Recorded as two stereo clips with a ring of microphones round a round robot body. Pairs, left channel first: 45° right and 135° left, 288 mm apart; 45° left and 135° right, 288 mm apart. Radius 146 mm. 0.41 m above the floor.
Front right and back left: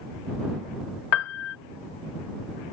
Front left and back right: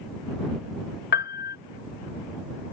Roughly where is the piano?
Ahead.